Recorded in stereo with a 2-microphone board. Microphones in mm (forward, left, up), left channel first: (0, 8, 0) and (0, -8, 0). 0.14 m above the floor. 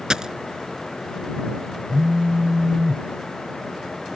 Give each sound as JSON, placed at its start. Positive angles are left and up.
{"t": 0.1, "sound": "a dropped coin", "side_deg": -45}
{"t": 1.9, "sound": "a phone buzzing", "side_deg": -75}